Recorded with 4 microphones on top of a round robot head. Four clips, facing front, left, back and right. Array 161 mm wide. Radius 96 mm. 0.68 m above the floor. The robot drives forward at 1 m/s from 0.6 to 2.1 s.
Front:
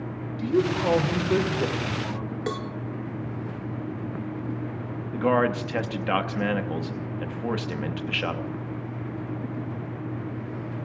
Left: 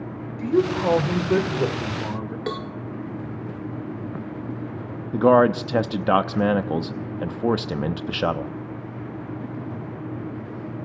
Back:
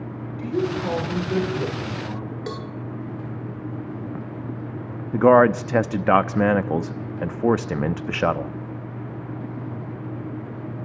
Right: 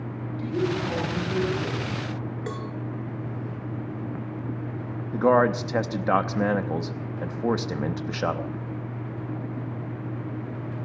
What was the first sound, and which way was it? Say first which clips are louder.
A woman speaking: left 6 dB, front 1 dB; 65° left.